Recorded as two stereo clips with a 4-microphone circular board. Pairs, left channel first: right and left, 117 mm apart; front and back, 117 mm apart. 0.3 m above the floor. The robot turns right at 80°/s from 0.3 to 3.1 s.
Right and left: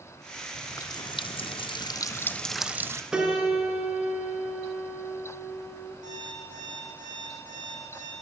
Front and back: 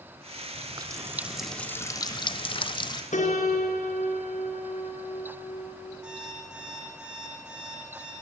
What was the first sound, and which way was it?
A running tap, 160° right.